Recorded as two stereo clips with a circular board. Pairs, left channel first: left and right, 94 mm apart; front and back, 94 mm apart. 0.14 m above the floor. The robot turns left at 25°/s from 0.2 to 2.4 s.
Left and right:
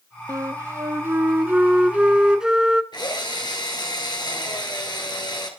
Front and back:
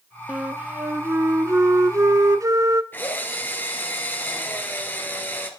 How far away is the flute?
About 0.8 m.